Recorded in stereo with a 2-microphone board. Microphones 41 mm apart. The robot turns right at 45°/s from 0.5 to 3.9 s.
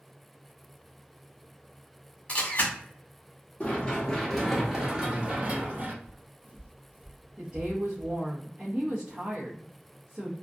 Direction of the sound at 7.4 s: 15° right (ahead or behind).